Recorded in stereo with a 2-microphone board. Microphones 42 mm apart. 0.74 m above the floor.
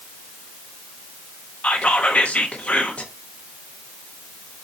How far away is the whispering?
About 0.8 m.